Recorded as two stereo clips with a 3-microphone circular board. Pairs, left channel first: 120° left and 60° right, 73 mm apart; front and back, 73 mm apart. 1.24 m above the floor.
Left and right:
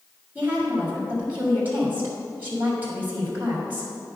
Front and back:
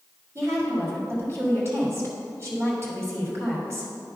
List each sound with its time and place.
0.3 s a woman speaking: 130° right, 2.5 m